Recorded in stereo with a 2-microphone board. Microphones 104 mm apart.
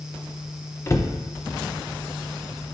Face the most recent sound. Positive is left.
turn(degrees=30)  # may be behind; listen again after turning